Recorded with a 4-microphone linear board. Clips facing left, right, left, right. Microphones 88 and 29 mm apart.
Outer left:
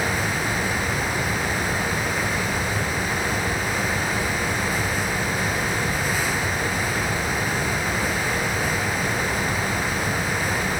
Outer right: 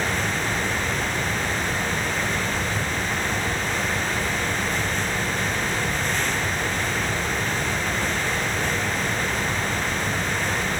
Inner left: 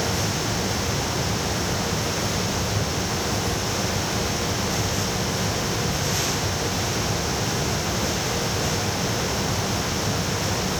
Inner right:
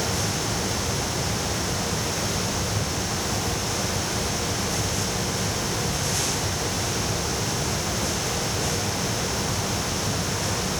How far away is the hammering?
No hammering in this recording.